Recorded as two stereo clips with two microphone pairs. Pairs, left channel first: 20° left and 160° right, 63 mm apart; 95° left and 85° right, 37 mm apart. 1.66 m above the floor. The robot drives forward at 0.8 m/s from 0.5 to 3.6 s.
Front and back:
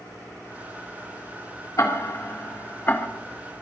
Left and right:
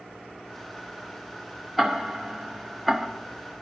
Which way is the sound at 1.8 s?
Straight ahead.